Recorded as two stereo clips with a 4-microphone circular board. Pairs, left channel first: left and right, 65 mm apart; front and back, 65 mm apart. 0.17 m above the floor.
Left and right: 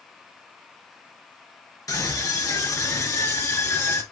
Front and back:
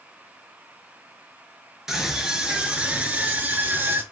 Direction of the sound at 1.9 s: 100° left.